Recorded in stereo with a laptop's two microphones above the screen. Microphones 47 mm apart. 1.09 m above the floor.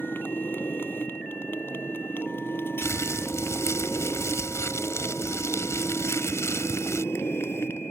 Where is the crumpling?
85° left.